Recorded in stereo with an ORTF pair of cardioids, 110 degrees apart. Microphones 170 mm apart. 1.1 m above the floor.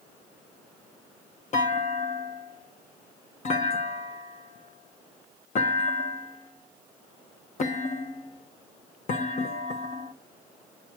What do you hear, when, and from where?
1.5 s a clunk: 45° left, 1.7 m